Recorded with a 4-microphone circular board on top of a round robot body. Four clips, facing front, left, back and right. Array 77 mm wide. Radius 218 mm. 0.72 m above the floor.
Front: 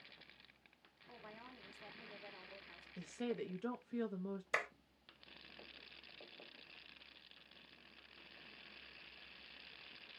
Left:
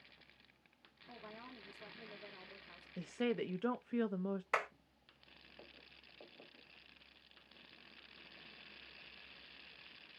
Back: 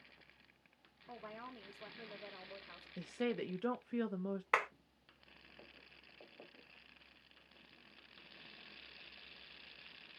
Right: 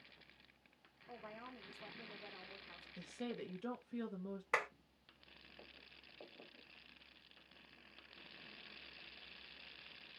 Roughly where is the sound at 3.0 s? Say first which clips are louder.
Left 8 dB, back 4 dB; behind left.